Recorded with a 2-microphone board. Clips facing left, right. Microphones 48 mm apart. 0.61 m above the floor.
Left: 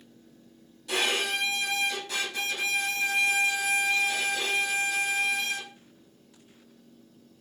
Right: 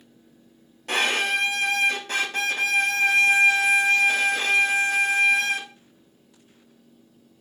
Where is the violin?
50° right (ahead or behind), 1.3 m.